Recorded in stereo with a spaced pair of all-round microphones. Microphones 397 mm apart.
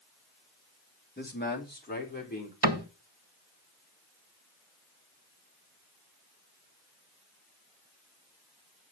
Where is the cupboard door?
80° right, 1.3 m.